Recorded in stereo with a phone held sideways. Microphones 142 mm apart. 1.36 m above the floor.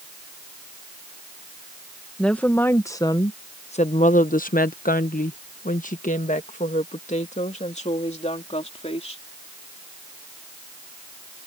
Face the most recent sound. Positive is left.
turn(degrees=45)  # may be behind; listen again after turning